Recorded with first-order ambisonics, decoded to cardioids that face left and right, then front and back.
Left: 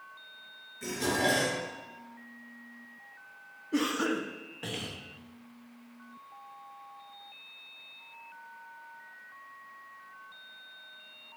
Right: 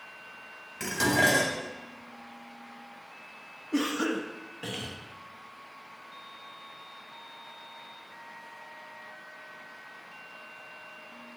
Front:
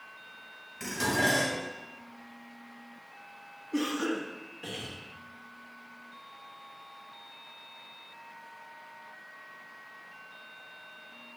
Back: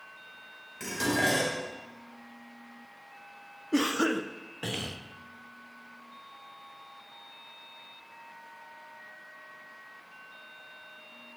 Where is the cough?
Straight behind, 0.6 m.